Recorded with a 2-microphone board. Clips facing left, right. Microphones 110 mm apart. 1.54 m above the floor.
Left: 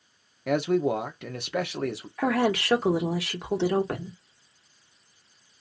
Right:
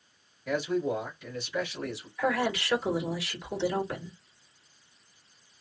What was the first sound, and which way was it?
A man speaking, 70° left (ahead or behind).